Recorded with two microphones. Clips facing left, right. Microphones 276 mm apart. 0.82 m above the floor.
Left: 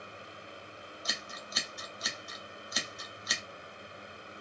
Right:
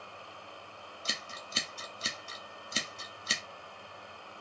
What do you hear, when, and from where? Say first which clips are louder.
1.1 s scissors: right 1 dB; 30° right (ahead or behind), 0.7 m